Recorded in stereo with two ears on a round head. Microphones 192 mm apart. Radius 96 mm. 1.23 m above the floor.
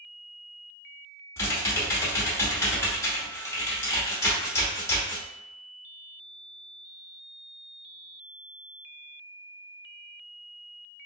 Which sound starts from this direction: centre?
Typing on a keyboard, at 1.4 s.